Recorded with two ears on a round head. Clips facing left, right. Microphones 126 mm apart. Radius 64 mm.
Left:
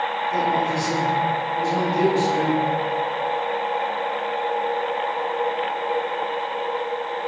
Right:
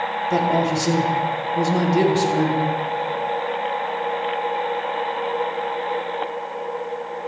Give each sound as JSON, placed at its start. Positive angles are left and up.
{"t": 0.3, "sound": "a man speaking", "side_deg": -75, "distance_m": 3.0}